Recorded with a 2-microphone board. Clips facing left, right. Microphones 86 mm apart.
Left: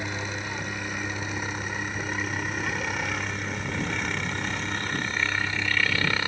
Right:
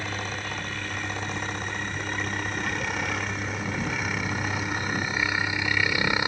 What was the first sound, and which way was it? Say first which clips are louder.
A helicopter: even; 15° left (ahead or behind).